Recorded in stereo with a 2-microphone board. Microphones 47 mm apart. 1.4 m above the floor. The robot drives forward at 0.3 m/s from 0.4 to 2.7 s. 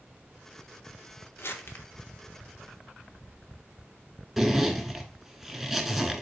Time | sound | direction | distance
1.4 | crumpling | 55° left (ahead or behind) | 1.0 m
4.4 | a zipper | 10° right (ahead or behind) | 1.0 m